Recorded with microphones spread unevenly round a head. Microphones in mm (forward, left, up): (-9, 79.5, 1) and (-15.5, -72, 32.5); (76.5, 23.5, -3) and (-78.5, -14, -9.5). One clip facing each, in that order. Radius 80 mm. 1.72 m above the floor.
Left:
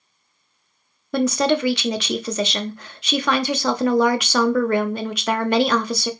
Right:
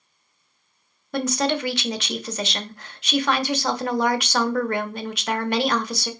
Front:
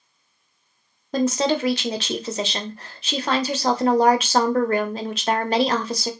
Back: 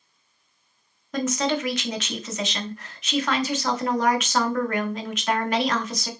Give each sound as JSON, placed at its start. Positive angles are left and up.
{"t": 1.1, "sound": "a woman speaking", "azimuth_deg": 75, "distance_m": 0.8}